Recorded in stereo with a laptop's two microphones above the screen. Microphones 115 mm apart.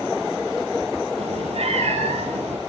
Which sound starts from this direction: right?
A cat meowing, at 1.2 s.